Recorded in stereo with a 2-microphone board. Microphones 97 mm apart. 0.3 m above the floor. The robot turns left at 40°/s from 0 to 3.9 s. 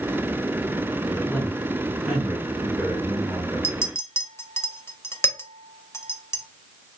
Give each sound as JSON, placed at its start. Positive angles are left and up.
{"t": 1.1, "sound": "a man speaking", "azimuth_deg": 40, "distance_m": 2.0}
{"t": 3.6, "sound": "a clink", "side_deg": 25, "distance_m": 0.6}